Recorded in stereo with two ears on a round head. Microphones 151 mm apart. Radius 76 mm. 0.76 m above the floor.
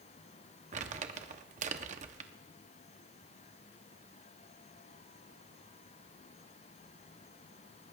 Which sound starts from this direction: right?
Crumpling, at 0.7 s.